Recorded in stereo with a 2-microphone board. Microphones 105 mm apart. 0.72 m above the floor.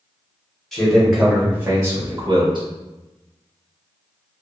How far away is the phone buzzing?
No phone buzzing in this recording.